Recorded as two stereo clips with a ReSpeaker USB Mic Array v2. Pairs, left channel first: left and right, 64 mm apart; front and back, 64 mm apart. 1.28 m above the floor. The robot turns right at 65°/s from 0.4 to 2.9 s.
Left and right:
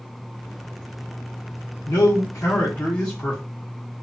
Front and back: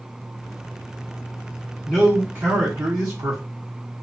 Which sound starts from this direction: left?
A man speaking, at 1.9 s.